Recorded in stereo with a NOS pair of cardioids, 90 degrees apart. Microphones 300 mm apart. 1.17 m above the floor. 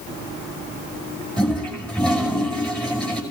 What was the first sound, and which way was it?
A toilet flushing, 5° left.